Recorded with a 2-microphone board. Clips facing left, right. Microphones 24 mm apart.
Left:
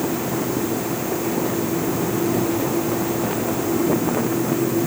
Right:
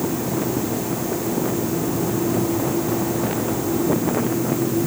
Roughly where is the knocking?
No knocking in this recording.